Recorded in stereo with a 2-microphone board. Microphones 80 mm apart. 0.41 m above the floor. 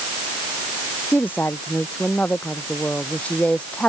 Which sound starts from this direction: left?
A woman speaking, at 1.1 s.